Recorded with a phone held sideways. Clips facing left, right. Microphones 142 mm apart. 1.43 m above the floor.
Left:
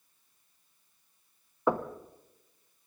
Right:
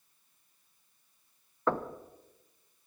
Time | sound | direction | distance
1.7 | knocking | 15° left (ahead or behind) | 0.9 m